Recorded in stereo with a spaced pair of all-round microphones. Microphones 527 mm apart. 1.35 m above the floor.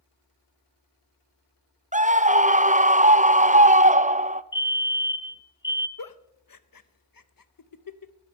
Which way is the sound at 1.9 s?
15° right (ahead or behind).